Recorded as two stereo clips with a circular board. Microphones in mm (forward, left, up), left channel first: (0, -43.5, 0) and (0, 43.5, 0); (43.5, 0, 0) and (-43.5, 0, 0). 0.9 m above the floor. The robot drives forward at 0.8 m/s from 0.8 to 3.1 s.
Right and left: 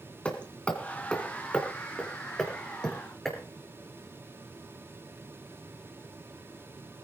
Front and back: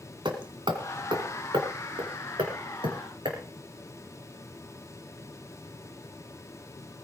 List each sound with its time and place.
0.2 s hammering: 165° right, 2 m; by 3.4 s 175° right, 4 m